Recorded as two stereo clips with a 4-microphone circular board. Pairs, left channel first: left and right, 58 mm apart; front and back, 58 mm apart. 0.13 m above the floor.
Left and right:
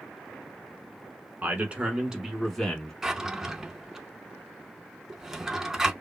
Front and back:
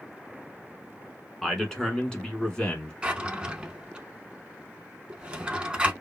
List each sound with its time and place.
1.4 s a man speaking: 80° right, 1.3 m; by 2.9 s 40° left, 1.2 m
3.0 s a drawer: 150° right, 0.5 m